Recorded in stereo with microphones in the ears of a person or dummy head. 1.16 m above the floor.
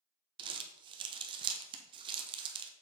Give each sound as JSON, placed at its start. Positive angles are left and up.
{"t": 0.4, "sound": "crumpling", "side_deg": -20, "distance_m": 0.8}